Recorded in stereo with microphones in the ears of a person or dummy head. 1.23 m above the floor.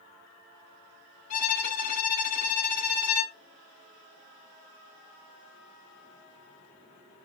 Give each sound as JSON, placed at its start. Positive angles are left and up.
{"t": 1.3, "sound": "a violin", "side_deg": 45, "distance_m": 1.9}